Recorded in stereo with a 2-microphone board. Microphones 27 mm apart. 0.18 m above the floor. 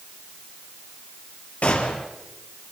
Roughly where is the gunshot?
Left.